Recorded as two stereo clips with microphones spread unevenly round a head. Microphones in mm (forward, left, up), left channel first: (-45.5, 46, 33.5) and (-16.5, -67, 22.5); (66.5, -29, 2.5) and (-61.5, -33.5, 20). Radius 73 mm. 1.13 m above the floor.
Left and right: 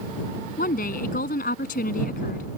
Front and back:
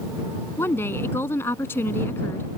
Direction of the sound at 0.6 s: 80° left.